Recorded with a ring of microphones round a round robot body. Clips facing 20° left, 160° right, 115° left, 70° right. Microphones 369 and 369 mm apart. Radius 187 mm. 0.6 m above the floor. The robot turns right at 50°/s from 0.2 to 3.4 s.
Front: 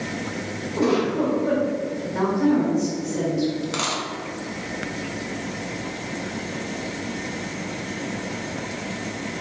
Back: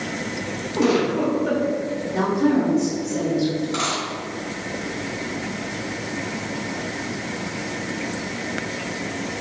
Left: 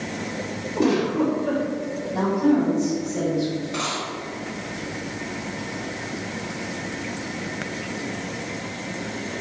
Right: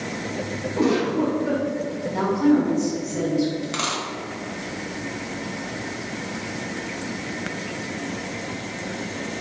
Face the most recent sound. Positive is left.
turn(degrees=-15)